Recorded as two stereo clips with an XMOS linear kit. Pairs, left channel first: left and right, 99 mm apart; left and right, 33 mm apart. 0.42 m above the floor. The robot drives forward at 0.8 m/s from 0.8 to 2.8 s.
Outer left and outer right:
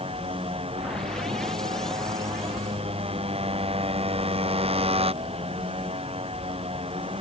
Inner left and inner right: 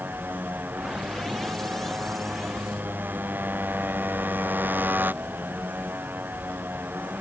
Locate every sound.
0.0 s a motorcycle: 80° right; by 7.2 s 85° right